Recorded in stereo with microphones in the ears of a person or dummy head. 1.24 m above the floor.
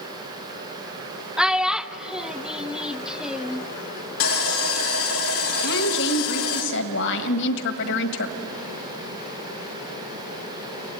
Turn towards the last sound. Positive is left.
turn(degrees=65)  # may be behind; listen again after turning